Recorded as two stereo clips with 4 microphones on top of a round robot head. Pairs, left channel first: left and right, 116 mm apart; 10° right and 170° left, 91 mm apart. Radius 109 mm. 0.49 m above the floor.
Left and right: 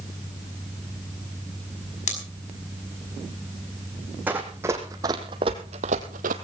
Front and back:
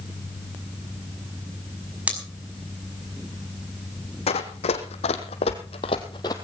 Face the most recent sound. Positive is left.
turn(degrees=-70)